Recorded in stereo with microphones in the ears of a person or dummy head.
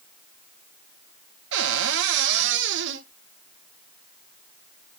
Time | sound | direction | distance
1.5 | a cupboard door | 60° right (ahead or behind) | 1.2 m